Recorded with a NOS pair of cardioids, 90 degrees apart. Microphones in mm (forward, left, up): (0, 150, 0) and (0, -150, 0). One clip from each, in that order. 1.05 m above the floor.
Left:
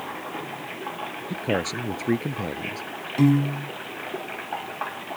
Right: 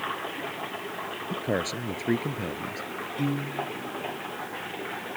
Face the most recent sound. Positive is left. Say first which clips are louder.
# left 9 dB
turn(degrees=70)